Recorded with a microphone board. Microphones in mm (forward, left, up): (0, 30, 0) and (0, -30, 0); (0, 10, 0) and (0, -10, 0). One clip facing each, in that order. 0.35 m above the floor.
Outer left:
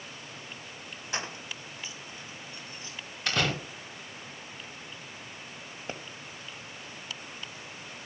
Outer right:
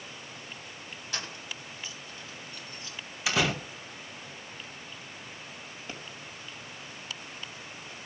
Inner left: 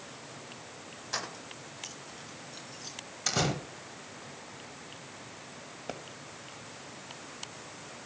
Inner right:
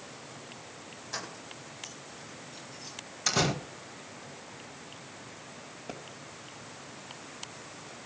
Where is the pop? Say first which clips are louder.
Outer left 4 dB, inner left 2 dB; 35° left (ahead or behind), 1.9 m.